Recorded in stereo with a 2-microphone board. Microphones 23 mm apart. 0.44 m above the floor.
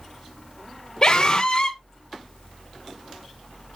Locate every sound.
1.0 s a scream: 35° left (ahead or behind), 1.3 m